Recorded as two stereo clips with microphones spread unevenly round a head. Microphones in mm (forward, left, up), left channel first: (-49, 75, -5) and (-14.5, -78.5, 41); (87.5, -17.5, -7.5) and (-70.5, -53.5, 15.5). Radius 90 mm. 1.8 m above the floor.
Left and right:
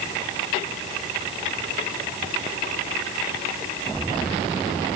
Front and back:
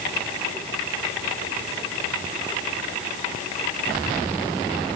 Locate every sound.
Only background noise.